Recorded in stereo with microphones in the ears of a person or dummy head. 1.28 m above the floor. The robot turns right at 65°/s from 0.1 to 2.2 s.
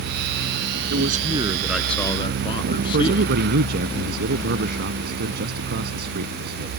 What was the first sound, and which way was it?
A man speaking, 70° right.